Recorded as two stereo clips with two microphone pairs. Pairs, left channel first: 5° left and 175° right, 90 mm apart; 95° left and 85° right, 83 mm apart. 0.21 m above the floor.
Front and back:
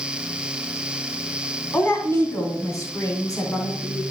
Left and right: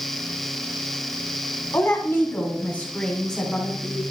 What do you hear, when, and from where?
1.7 s a woman speaking: 60° left, 2.0 m; by 4.0 s 5° left, 2 m